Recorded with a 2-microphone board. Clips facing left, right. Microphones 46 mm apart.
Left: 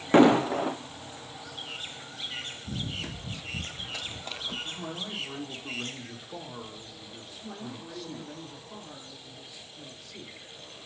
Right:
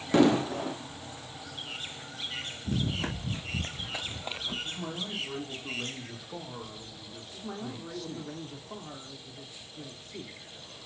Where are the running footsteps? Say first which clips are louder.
Right 7 dB; 55° right (ahead or behind), 0.7 m; by 4.5 s 10° right (ahead or behind), 1.4 m.